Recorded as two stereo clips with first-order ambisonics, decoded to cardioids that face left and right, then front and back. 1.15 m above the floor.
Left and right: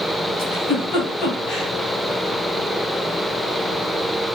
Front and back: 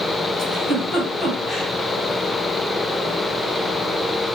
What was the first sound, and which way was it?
A giggle, 75° left.